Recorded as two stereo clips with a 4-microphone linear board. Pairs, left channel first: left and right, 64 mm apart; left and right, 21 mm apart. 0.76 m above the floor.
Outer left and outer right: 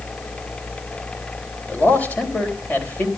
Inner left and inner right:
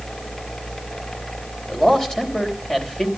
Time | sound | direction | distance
1.7 | a man speaking | 25° left (ahead or behind) | 3.5 m